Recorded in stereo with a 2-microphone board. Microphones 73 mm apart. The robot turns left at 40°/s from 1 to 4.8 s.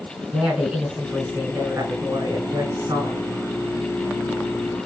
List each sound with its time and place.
0.3 s a woman speaking: 15° right, 3 m; by 3.3 s 105° right, 3 m